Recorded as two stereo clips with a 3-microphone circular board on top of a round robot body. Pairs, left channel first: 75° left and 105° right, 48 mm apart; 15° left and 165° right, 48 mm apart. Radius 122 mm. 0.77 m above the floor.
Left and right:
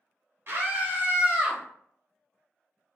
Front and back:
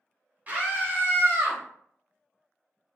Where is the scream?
120° right, 1.6 m; by 1.6 s straight behind, 1.4 m.